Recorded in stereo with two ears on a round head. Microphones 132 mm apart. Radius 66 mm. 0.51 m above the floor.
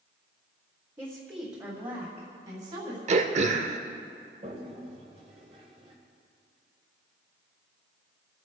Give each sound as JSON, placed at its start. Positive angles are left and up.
{"t": 1.0, "sound": "a woman speaking", "side_deg": -15, "distance_m": 1.6}
{"t": 3.1, "sound": "throat clearing", "side_deg": -50, "distance_m": 0.8}
{"t": 4.4, "sound": "a toilet flushing", "side_deg": -45, "distance_m": 1.8}